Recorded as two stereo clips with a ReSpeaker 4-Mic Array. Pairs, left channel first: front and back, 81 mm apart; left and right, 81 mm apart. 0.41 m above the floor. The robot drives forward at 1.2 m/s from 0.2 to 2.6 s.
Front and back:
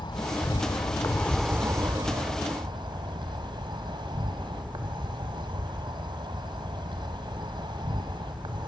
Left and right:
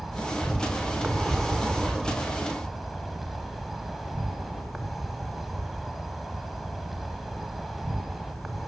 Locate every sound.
0.0 s an insect: straight ahead, 1.5 m; by 8.7 s straight behind, 1.5 m